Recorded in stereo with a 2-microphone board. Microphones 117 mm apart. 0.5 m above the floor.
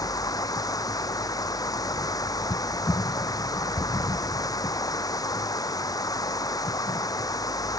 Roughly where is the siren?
No siren in this recording.